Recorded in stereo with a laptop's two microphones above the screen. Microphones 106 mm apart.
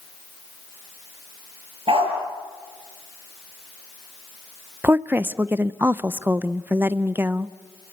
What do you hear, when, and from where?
1.9 s a dog barking: 65° right (ahead or behind), 7.5 m
4.8 s a woman speaking: 20° right (ahead or behind), 0.7 m